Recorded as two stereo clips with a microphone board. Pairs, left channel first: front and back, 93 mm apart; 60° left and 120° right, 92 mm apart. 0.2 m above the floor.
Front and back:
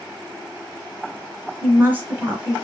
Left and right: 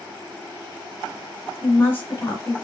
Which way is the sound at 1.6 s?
115° left.